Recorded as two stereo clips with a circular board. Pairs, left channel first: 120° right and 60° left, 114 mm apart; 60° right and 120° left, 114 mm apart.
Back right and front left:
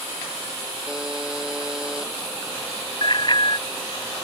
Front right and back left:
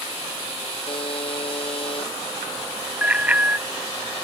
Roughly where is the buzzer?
Ahead right.